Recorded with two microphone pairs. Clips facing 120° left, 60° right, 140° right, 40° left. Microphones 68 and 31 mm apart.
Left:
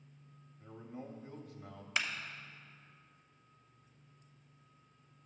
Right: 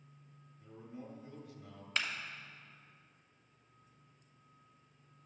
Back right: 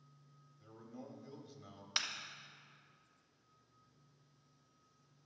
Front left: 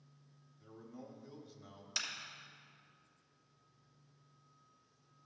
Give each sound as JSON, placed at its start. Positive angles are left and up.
{"t": 0.6, "sound": "a man speaking", "azimuth_deg": 120, "distance_m": 1.0}
{"t": 2.0, "sound": "a clap", "azimuth_deg": -160, "distance_m": 0.9}